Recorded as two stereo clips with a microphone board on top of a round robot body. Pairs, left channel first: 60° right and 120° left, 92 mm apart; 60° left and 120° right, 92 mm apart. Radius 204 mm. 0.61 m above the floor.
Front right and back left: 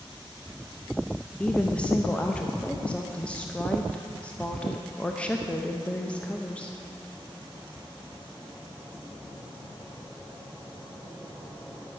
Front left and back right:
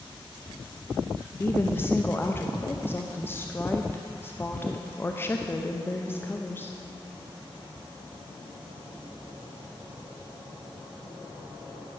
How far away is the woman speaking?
About 1.0 m.